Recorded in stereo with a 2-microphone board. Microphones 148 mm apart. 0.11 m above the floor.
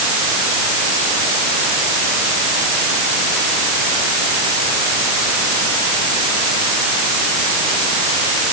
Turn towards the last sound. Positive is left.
No sound to turn to.